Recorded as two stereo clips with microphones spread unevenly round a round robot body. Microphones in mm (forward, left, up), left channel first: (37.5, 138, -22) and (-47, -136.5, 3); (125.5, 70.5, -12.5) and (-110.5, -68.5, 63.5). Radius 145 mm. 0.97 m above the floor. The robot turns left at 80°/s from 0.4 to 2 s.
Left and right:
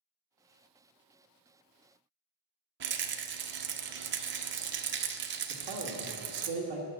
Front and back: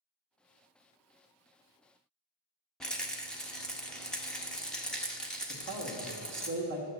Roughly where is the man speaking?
Right.